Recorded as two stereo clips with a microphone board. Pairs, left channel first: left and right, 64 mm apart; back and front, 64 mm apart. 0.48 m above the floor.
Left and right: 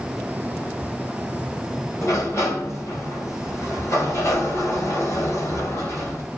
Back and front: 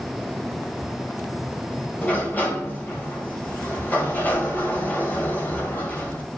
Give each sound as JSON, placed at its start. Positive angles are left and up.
{"t": 2.0, "sound": "a sliding door", "azimuth_deg": 120, "distance_m": 2.5}